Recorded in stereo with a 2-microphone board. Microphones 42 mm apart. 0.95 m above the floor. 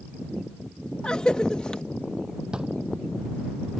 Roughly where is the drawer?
Centre.